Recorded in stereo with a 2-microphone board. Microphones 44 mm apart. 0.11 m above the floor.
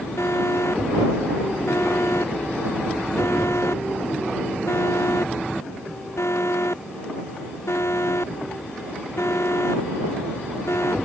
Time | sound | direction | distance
0.2 | an alarm | 80° left | ?